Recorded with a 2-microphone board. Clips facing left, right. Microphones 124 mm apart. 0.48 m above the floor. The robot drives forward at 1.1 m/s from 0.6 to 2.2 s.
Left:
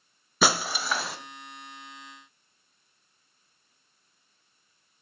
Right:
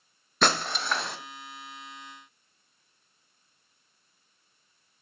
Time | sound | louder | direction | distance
0.4 | breaking glass | left 1 dB | 5° left (ahead or behind) | 0.8 m